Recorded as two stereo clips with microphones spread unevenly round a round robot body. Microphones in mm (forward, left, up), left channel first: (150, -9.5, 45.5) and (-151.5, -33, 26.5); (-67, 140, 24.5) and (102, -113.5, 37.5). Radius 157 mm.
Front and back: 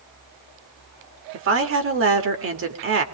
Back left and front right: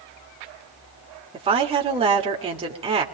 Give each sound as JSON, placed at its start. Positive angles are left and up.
{"t": 1.3, "sound": "a woman speaking", "azimuth_deg": -130, "distance_m": 2.5}